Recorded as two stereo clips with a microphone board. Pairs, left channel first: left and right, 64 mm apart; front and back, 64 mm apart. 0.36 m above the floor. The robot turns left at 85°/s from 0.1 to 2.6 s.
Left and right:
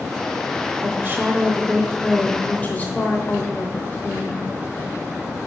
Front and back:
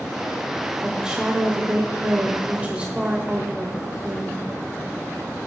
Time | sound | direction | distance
0.8 | a woman speaking | 85° right | 0.9 m